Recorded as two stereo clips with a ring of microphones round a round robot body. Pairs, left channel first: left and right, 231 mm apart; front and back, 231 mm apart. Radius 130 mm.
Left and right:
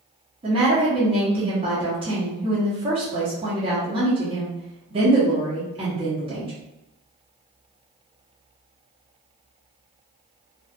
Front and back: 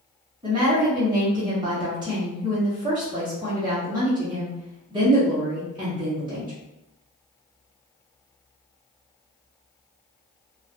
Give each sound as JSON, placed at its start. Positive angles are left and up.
{"t": 0.4, "sound": "a woman speaking", "azimuth_deg": -130, "distance_m": 0.8}